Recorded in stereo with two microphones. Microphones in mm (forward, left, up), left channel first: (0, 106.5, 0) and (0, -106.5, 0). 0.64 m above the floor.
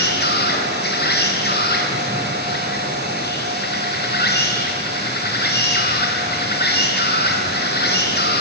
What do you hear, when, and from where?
0.0 s an insect: 50° left (ahead or behind), 3.5 m